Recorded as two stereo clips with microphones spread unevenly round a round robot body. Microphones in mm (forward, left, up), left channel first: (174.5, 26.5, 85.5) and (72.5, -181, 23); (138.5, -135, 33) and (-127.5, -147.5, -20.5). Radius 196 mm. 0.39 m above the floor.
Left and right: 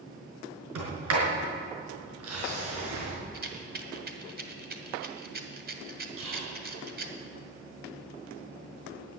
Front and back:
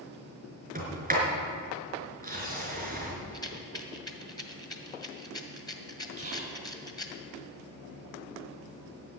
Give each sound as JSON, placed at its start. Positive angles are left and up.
{"t": 0.8, "sound": "a sliding door", "azimuth_deg": -120, "distance_m": 5.0}
{"t": 3.3, "sound": "a rattle", "azimuth_deg": -75, "distance_m": 2.0}
{"t": 6.2, "sound": "whispering", "azimuth_deg": -120, "distance_m": 4.0}